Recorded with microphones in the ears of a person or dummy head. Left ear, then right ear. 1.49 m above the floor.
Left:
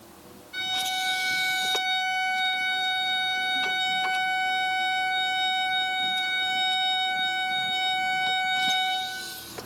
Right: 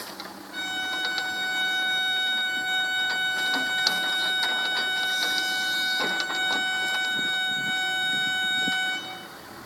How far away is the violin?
About 5 m.